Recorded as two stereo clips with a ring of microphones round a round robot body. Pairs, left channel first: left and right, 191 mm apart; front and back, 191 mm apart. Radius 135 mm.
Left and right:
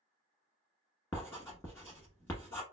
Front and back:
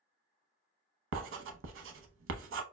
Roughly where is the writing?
Behind.